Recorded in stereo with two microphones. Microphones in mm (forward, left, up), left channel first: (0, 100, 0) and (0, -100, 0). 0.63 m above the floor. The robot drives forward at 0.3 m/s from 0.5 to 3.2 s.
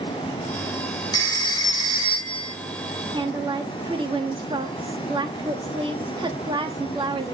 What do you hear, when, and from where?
1.1 s a phone ringing: 20° left (ahead or behind), 1.6 m; by 2.5 s 25° left (ahead or behind), 1.3 m
3.1 s a woman speaking: 25° right (ahead or behind), 1.2 m